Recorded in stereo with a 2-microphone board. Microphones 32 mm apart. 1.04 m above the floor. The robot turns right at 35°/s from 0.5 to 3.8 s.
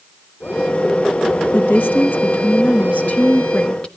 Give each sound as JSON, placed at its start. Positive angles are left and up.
{"t": 1.5, "sound": "a woman speaking", "azimuth_deg": 70, "distance_m": 1.2}